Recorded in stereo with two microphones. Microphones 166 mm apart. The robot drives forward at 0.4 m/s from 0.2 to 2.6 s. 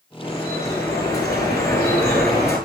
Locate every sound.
0.2 s dripping: 20° left (ahead or behind), 7.5 m; by 2.6 s 15° left (ahead or behind), 8.5 m